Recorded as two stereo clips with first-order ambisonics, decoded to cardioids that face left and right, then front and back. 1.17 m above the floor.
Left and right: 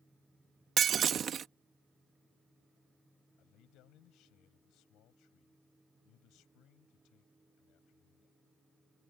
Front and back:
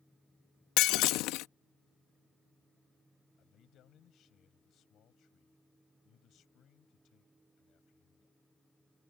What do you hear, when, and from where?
0.8 s breaking glass: 30° right
3.4 s a man speaking: 50° left